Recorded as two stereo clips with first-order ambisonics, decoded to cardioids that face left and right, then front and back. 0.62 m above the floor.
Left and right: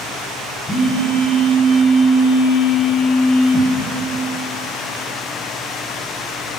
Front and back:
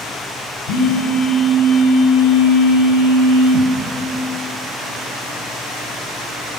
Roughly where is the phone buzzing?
Ahead.